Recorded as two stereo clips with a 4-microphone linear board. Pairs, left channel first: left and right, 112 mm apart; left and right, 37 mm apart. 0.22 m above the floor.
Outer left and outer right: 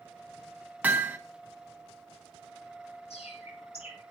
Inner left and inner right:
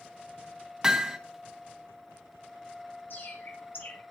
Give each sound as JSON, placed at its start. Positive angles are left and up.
{"t": 0.8, "sound": "hammering", "side_deg": -15, "distance_m": 1.6}
{"t": 3.1, "sound": "a bird", "side_deg": 70, "distance_m": 6.5}